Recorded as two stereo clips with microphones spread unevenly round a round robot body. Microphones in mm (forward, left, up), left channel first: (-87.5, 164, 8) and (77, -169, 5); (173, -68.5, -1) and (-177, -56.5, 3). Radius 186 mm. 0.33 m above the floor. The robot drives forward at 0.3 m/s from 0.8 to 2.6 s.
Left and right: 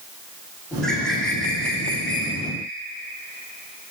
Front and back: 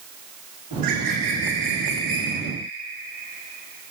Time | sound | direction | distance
0.7 | a bird | 155° right | 7.5 m